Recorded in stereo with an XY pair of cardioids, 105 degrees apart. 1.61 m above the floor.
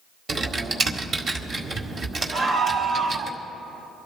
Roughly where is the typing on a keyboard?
Ahead right.